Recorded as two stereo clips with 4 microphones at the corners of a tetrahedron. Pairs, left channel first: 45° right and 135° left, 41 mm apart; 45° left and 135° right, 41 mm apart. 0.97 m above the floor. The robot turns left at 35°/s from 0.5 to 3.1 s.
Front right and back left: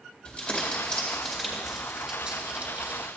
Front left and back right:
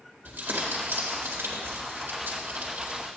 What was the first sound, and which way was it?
Crumpling, 95° right.